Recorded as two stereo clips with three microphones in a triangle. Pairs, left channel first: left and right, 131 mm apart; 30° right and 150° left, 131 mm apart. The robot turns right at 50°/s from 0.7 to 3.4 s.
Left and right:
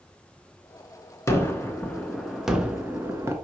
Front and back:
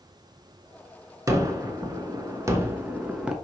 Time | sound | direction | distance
1.3 | a gunshot | 125° left | 0.6 m